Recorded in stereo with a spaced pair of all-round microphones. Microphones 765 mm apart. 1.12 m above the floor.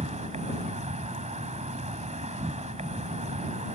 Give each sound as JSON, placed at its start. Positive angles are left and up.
{"t": 0.0, "sound": "an insect", "side_deg": -10}